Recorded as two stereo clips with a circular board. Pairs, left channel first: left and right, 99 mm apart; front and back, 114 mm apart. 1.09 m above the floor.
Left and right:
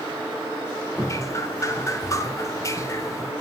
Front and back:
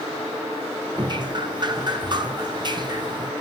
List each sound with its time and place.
1.0 s dripping: 140° left, 1.0 m